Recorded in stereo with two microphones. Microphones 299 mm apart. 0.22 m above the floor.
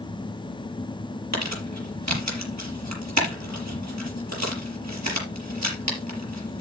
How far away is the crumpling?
About 5 m.